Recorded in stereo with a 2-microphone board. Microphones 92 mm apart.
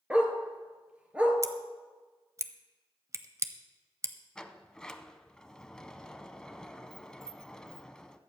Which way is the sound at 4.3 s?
10° left (ahead or behind).